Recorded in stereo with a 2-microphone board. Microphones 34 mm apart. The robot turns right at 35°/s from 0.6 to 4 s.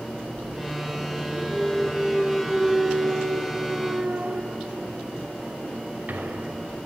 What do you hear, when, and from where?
1.5 s a clunk: 160° left, 0.9 m; by 6.8 s 115° right, 0.9 m